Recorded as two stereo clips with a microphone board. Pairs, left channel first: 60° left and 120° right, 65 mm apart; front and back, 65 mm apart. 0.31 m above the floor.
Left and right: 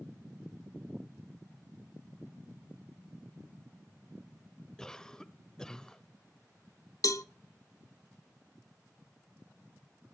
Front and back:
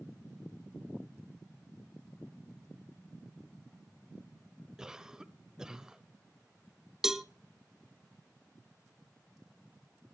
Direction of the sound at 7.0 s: 95° left.